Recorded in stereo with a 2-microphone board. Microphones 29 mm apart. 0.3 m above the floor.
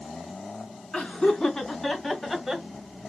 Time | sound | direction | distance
0.9 | laughter | 25° left (ahead or behind) | 3 m